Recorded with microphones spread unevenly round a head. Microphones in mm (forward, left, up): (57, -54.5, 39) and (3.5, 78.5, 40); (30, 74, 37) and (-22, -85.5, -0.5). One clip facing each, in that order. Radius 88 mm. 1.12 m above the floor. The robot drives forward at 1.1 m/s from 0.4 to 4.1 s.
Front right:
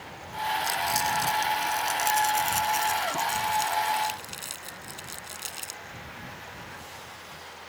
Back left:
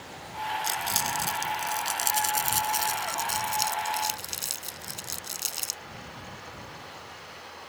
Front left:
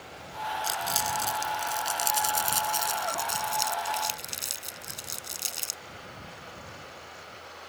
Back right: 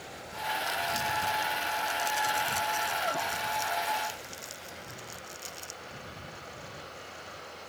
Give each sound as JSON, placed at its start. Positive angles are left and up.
{"t": 0.6, "sound": "crumpling", "azimuth_deg": 50}